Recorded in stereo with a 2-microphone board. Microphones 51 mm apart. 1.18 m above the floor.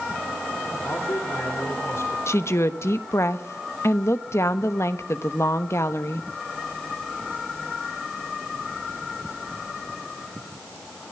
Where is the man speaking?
70° left (ahead or behind), 4.5 m.